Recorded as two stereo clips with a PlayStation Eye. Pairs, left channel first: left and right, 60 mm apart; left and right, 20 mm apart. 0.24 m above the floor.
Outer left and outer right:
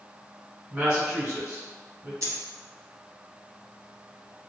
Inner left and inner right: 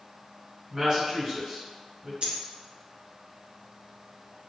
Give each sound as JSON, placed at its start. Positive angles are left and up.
{"t": 0.7, "sound": "a woman speaking", "side_deg": -15, "distance_m": 1.5}
{"t": 2.2, "sound": "a dropped coin", "side_deg": -55, "distance_m": 0.5}